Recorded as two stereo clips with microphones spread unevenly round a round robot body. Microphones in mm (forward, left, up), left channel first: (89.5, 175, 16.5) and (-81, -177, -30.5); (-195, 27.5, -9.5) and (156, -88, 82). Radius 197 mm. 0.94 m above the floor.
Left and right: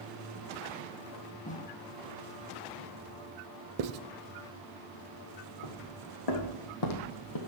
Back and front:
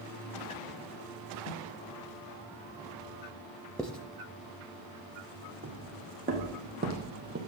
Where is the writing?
90° right, 0.8 m.